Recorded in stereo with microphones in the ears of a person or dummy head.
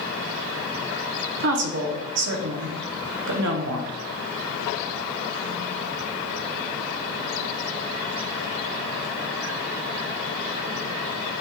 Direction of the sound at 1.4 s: 65° right (ahead or behind).